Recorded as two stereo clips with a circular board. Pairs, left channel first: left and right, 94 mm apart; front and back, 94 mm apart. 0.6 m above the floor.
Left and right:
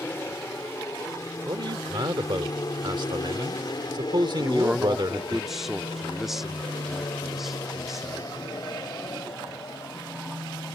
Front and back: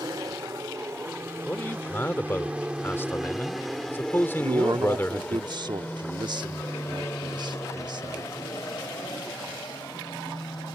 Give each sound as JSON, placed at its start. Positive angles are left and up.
{"t": 0.0, "sound": "an aircraft", "azimuth_deg": 145}
{"t": 1.5, "sound": "a man speaking", "azimuth_deg": -65}
{"t": 4.4, "sound": "a man speaking", "azimuth_deg": -175}